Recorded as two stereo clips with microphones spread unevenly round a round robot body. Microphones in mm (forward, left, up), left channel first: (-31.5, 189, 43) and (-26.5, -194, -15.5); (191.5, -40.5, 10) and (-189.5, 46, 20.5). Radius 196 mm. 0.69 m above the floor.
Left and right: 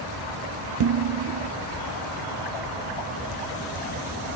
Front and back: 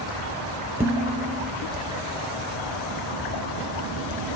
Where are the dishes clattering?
110° right, 0.9 m.